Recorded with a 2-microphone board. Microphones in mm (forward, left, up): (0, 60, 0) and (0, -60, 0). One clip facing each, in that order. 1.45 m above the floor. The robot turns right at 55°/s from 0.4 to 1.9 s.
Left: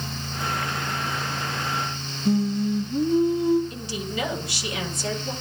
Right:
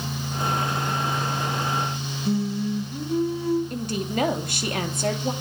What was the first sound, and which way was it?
Singing, 15° left (ahead or behind).